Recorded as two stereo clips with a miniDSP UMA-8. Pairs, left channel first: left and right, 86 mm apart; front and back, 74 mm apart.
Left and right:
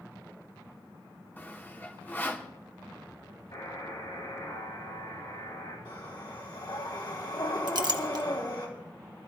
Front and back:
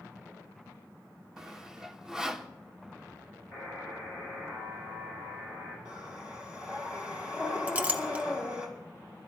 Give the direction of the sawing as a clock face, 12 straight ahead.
8 o'clock.